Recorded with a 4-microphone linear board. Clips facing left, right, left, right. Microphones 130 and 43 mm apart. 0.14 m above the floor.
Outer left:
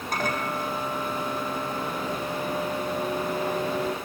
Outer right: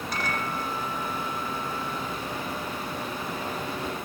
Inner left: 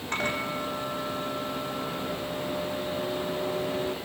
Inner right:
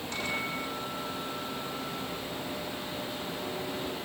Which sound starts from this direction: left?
A microwave, at 0.1 s.